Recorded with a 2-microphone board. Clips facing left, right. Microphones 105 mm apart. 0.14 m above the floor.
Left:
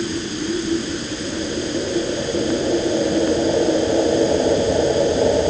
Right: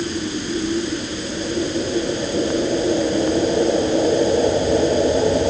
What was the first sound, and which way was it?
Only background noise.